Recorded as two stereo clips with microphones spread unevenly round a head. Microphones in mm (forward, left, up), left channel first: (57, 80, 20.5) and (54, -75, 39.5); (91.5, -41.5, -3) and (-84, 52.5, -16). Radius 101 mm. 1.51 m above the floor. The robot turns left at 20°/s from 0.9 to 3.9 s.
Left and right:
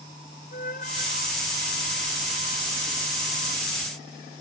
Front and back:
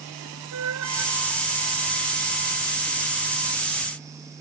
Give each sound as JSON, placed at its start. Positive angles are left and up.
{"t": 0.5, "sound": "a flute", "azimuth_deg": 145}